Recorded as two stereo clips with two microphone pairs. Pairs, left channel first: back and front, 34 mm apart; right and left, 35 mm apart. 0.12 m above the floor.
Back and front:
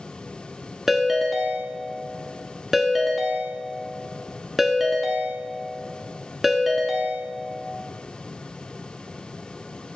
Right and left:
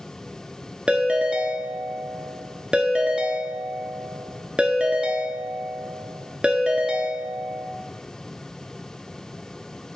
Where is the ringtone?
75° left, 0.6 m.